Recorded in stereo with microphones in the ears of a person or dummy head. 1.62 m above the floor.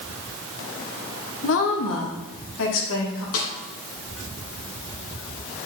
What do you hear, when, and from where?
1.4 s a woman speaking: 75° left (ahead or behind), 1.6 m; by 3.2 s 85° left, 3.5 m
3.3 s a snare drum: 75° left (ahead or behind), 3 m